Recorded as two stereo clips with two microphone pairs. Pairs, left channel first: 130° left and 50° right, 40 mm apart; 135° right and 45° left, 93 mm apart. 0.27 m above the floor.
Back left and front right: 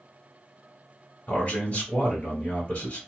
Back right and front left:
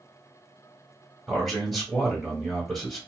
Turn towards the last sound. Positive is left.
turn(degrees=135)